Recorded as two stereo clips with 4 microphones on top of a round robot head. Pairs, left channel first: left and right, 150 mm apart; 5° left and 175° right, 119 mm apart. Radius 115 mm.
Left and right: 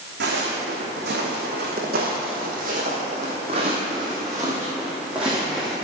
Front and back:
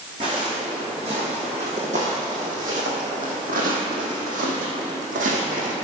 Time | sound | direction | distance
0.2 | footsteps | 110° right | 2.5 m